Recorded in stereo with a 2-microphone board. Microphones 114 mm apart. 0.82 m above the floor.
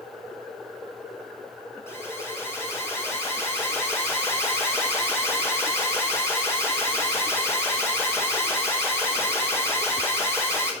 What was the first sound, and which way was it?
An alarm, 25° left (ahead or behind).